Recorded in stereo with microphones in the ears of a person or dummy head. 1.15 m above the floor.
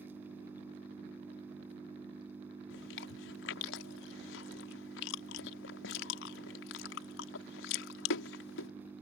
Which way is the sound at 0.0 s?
10° right (ahead or behind).